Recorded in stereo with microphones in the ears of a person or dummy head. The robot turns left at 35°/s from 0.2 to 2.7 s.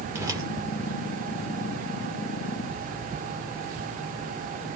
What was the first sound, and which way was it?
A whoosh, 15° right (ahead or behind).